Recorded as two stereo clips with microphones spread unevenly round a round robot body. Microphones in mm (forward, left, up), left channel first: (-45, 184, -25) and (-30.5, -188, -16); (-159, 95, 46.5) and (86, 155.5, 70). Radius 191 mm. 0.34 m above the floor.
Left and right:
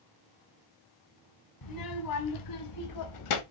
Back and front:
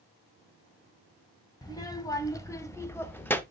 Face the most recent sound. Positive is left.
turn(degrees=115)